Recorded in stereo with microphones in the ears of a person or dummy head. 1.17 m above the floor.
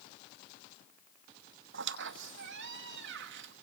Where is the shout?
No shout in this recording.